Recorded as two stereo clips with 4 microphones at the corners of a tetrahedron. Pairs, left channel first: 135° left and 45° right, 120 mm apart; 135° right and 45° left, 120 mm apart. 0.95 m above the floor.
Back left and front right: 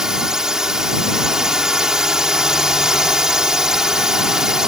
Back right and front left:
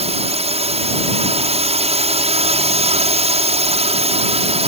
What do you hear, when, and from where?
0.0 s a drone: 40° left